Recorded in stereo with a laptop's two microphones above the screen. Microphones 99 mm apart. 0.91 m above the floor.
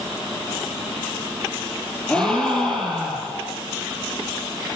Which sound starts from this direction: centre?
A gasp, at 2.1 s.